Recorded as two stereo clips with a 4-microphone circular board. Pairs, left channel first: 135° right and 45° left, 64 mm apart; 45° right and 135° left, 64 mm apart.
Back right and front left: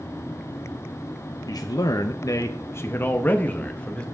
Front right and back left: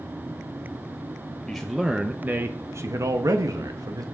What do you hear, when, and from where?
1.5 s a man speaking: 130° right, 1.0 m; by 4.0 s 155° left, 1.8 m